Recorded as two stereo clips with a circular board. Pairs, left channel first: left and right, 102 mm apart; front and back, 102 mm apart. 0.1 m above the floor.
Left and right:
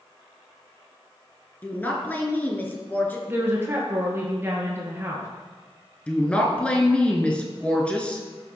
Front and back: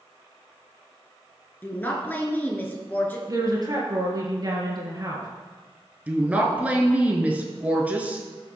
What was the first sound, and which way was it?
A woman speaking, 45° left.